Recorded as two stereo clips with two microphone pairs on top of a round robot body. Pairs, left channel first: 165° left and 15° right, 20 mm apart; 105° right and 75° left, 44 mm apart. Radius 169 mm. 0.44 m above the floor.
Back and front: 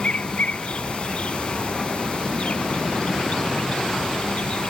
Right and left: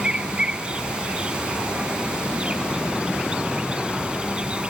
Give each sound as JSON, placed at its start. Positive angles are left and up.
{"t": 0.0, "sound": "an insect", "azimuth_deg": 140}